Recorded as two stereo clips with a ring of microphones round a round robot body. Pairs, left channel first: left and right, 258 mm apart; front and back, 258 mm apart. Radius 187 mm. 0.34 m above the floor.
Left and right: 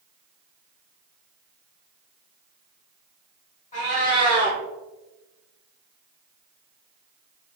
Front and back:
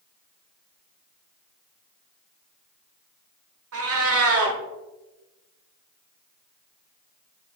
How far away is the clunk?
I don't hear a clunk.